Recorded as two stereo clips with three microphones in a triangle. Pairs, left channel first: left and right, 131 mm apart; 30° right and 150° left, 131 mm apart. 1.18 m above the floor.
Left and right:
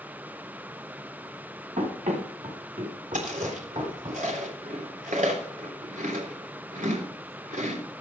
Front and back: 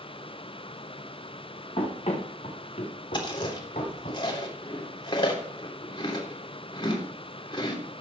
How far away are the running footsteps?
About 7 m.